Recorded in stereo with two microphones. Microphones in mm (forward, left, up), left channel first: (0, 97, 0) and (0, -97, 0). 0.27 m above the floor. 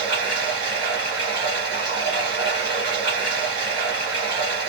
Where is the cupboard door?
I don't hear a cupboard door.